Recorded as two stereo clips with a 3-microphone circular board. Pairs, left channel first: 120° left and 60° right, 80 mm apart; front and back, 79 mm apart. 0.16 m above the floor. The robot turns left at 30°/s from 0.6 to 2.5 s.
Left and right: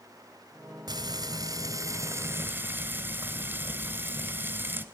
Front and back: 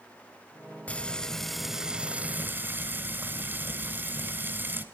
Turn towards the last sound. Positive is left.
turn(degrees=-120)